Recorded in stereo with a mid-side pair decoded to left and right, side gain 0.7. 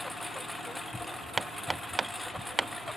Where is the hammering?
15° right.